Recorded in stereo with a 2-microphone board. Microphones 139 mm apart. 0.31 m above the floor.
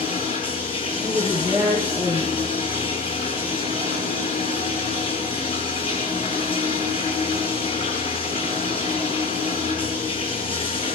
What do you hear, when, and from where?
0.0 s running water: 40° left (ahead or behind), 7 m
1.0 s a woman speaking: 20° right (ahead or behind), 5 m